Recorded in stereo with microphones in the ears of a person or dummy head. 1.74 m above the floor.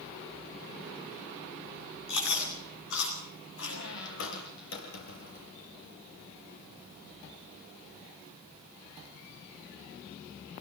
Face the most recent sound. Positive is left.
turn(degrees=70)  # may be behind; listen again after turning